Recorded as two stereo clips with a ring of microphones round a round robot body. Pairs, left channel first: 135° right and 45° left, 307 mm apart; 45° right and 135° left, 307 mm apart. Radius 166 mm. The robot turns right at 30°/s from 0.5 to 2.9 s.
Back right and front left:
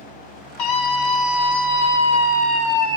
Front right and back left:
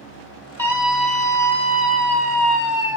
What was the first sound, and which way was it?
A scream, 130° right.